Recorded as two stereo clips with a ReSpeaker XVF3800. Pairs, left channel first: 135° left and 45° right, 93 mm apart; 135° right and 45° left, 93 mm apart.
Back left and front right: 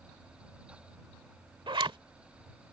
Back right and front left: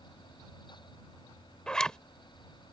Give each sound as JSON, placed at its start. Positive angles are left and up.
{"t": 1.7, "sound": "a zipper", "azimuth_deg": -55}